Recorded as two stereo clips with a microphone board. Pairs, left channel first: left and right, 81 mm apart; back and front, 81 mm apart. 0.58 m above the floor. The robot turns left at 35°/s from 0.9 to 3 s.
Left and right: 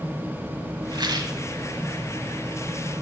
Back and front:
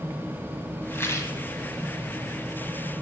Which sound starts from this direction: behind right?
A rattle, at 0.9 s.